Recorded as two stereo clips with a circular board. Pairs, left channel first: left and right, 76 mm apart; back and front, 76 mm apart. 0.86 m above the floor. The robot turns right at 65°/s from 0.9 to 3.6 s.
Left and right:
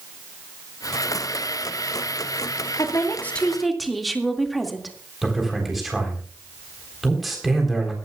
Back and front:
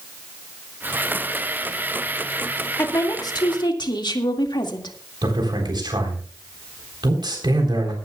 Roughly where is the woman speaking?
Behind left.